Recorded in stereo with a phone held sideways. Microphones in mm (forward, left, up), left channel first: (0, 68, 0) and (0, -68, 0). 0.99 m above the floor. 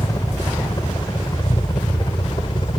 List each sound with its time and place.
0.0 s a helicopter: 25° left (ahead or behind); by 2.8 s 40° left (ahead or behind)